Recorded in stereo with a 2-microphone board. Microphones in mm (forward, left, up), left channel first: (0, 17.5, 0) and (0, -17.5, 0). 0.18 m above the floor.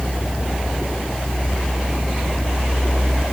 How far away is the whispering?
I don't hear whispering.